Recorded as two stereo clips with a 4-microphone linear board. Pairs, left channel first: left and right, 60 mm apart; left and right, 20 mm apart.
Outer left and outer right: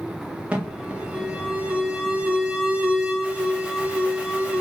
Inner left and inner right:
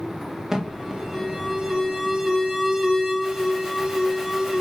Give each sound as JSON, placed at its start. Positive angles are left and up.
{"t": 0.5, "sound": "an alarm", "side_deg": -20, "distance_m": 0.7}